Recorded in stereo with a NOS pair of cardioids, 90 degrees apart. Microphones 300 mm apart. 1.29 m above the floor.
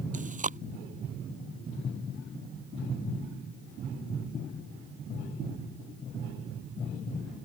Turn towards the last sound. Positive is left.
turn(degrees=-25)